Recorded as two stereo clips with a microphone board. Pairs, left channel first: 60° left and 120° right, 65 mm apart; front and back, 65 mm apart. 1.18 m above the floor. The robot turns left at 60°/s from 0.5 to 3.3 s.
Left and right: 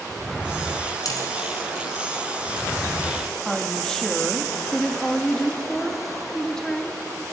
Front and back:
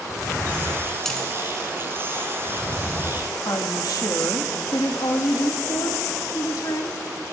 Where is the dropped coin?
85° left, 2.5 m; by 1.3 s 70° left, 2.5 m.